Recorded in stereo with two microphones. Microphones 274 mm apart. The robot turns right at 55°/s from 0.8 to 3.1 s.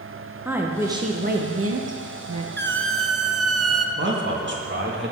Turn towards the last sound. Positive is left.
turn(degrees=-45)  # may be behind; listen again after turning